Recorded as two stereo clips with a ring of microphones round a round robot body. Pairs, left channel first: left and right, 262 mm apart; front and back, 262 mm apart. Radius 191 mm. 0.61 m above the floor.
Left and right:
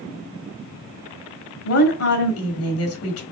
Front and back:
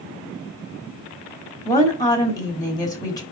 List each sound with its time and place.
1.6 s a woman speaking: 75° left, 1.7 m